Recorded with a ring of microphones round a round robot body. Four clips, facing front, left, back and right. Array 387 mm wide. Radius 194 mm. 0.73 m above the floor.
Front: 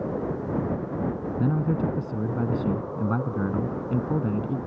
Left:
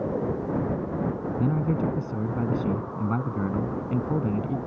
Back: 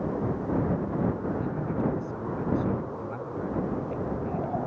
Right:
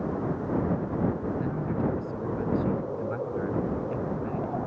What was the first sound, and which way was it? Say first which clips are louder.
A man speaking: left 3 dB, front 4 dB; 40° left.